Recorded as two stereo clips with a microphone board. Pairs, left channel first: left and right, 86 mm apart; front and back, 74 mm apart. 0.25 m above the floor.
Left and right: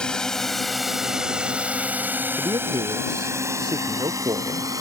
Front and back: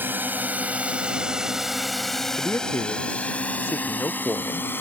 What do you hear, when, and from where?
0.0 s a drone: 160° left; by 4.8 s 55° right
2.4 s a man speaking: 60° right